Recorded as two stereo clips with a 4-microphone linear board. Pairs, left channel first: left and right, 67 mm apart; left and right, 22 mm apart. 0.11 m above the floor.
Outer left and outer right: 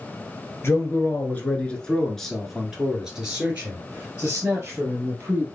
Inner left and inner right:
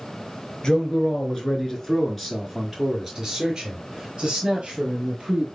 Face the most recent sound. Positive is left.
turn(degrees=-35)  # may be behind; listen again after turning